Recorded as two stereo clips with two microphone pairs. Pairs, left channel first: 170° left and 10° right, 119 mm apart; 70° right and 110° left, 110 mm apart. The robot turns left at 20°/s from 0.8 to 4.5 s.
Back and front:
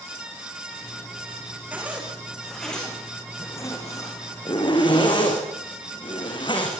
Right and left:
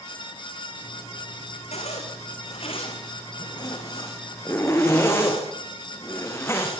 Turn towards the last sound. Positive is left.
turn(degrees=-140)